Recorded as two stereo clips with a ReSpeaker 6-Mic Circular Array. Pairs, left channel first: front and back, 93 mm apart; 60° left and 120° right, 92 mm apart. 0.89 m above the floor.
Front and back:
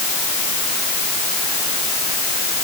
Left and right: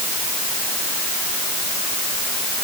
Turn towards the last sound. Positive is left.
No sound to turn to.